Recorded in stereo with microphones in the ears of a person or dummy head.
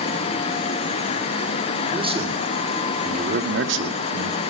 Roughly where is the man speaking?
Centre.